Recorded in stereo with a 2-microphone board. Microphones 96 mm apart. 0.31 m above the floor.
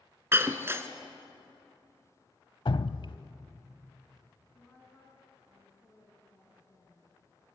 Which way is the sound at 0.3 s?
25° right (ahead or behind).